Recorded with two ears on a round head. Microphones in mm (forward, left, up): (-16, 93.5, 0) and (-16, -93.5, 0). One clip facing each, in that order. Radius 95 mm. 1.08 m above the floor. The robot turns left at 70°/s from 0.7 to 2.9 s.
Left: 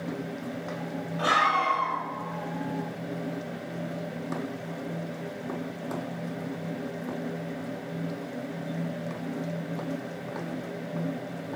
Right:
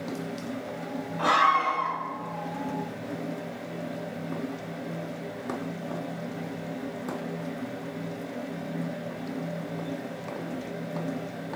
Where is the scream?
15° left, 3.5 m; by 2.0 s 40° right, 3.5 m.